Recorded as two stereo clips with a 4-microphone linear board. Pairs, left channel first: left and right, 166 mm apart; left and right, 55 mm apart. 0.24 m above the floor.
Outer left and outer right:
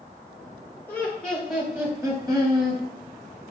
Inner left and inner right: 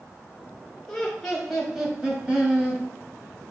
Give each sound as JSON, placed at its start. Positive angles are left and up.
{"t": 0.9, "sound": "laughter", "side_deg": 10, "distance_m": 1.4}